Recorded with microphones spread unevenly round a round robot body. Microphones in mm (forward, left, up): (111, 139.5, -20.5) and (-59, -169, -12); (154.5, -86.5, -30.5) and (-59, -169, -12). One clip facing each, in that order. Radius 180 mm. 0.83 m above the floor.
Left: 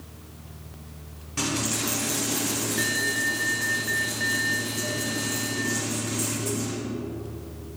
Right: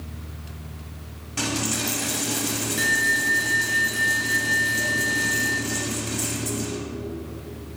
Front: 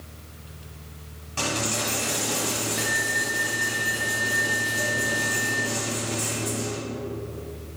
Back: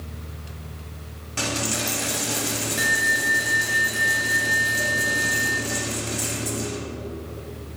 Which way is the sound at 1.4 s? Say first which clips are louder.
Right 1 dB, back 1 dB; 165° left.